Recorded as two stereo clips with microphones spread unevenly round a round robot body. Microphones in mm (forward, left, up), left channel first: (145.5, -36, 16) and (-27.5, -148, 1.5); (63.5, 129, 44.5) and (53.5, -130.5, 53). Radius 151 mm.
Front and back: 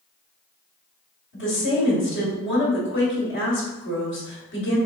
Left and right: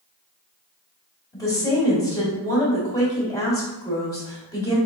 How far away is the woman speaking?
About 1.9 m.